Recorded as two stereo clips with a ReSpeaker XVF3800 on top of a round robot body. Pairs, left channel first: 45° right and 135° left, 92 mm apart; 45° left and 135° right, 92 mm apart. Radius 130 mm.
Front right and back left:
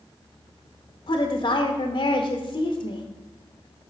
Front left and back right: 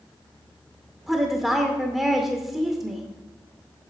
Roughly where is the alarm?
I don't hear an alarm.